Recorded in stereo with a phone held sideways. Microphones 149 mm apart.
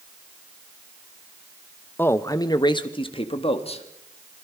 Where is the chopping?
I don't hear chopping.